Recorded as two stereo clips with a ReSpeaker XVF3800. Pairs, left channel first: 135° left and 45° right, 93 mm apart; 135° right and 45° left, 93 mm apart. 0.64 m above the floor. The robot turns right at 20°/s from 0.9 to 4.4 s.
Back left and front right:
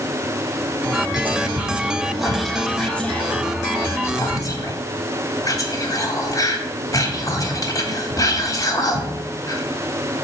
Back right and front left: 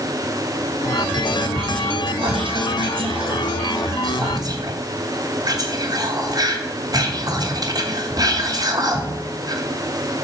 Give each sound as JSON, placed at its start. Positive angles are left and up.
{"t": 1.1, "sound": "whispering", "azimuth_deg": 20, "distance_m": 1.2}